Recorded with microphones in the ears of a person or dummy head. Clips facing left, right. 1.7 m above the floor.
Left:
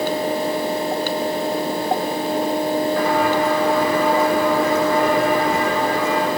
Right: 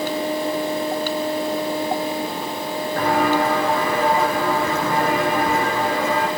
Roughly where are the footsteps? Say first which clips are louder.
Left 1 dB; right.